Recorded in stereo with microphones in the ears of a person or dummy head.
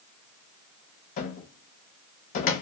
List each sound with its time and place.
1.2 s a cupboard door: 45° left (ahead or behind), 0.8 m